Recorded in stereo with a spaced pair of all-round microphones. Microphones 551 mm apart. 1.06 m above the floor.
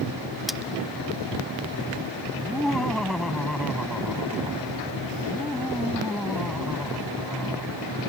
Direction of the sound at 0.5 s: Centre (ahead or behind).